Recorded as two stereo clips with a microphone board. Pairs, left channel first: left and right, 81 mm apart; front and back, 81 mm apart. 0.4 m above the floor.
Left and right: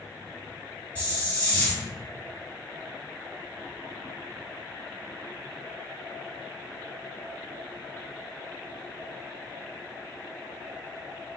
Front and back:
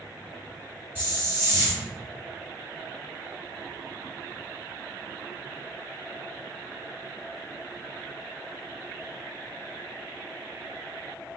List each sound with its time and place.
0.9 s a hiss: 145° left, 1.1 m